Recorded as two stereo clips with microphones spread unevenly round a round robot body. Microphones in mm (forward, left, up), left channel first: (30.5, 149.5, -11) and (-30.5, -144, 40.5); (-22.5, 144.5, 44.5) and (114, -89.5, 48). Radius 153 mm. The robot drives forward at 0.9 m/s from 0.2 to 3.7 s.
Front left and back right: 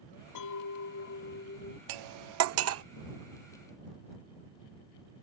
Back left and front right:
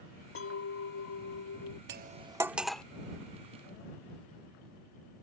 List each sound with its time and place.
0.3 s a clink: 85° left; by 1.8 s 140° left
1.9 s cutlery clinking: 110° right; by 2.8 s 155° right